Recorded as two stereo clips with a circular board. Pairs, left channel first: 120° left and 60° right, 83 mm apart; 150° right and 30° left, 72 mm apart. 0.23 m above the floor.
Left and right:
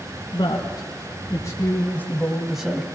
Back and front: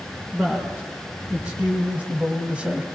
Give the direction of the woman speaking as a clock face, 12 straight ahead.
9 o'clock.